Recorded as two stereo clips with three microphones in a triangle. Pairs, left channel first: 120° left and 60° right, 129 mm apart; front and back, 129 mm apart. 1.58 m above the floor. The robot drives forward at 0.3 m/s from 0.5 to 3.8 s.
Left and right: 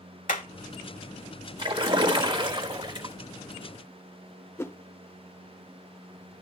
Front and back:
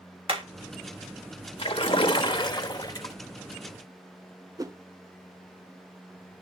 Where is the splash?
25° right, 1.3 m; by 3.1 s 45° right, 1.0 m.